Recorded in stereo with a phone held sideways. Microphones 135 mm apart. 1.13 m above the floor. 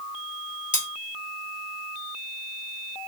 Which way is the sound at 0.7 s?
70° left (ahead or behind).